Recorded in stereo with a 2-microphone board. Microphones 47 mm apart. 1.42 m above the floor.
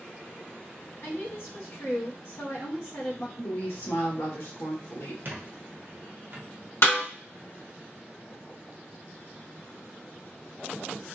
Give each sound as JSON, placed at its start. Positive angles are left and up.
{"t": 1.0, "sound": "a woman speaking", "side_deg": 70, "distance_m": 1.3}
{"t": 3.4, "sound": "a woman speaking", "side_deg": 75, "distance_m": 1.5}
{"t": 5.2, "sound": "a squeak", "side_deg": -50, "distance_m": 0.8}
{"t": 6.8, "sound": "a snare drum", "side_deg": 65, "distance_m": 2.0}